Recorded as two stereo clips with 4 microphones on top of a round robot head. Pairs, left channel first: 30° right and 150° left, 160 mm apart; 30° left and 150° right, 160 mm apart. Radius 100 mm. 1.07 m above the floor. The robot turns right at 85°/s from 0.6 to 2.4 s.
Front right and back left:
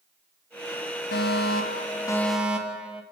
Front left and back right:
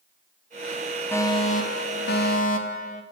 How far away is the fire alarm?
About 4 m.